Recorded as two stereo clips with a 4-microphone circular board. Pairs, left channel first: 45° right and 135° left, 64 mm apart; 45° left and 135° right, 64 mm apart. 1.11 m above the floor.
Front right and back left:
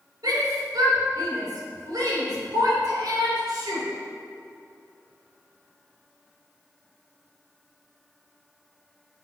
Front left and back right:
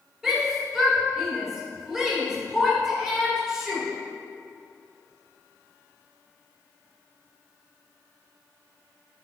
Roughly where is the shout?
Behind left.